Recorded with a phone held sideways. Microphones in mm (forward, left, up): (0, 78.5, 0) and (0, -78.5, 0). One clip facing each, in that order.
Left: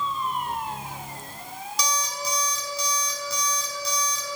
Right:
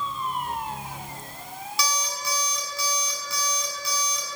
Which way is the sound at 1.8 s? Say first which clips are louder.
Left 1 dB; centre (ahead or behind).